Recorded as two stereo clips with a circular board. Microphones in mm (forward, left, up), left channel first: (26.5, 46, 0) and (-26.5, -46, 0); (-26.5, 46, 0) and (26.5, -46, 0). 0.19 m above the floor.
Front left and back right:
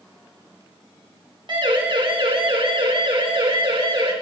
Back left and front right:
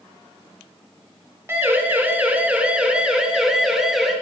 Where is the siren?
120° right, 2.5 m; by 4.1 s 150° right, 4 m.